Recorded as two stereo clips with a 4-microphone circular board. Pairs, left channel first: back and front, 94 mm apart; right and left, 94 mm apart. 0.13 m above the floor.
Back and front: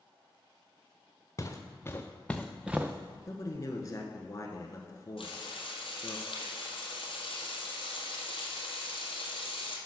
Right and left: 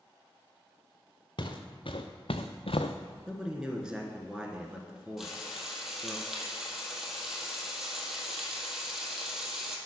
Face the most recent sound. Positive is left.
turn(degrees=175)